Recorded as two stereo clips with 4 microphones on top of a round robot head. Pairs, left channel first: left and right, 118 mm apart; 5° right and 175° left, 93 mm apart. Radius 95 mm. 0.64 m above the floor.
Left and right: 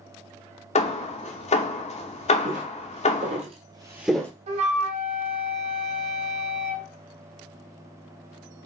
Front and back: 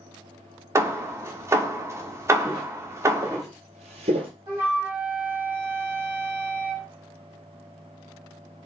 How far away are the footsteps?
About 2.5 m.